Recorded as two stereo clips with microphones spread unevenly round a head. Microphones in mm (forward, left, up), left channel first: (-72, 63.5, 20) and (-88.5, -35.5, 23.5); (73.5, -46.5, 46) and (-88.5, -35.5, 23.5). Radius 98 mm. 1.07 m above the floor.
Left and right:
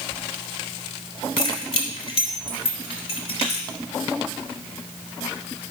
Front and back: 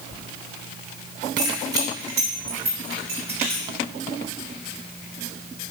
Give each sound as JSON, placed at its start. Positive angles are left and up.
{"t": 1.4, "sound": "keys jangling", "azimuth_deg": 105, "distance_m": 2.5}